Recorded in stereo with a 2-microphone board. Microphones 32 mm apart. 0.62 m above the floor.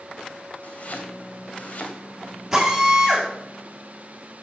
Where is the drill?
10° right (ahead or behind), 3.5 m.